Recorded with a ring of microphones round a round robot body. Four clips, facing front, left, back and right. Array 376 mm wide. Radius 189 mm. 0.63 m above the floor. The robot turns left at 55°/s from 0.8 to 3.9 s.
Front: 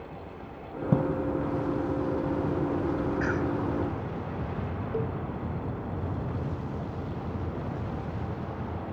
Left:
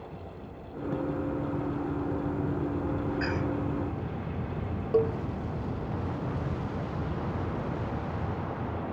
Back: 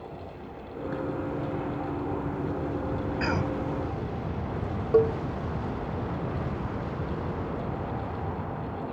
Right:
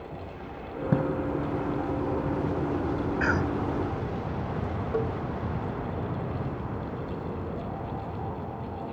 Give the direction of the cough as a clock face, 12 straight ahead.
4 o'clock.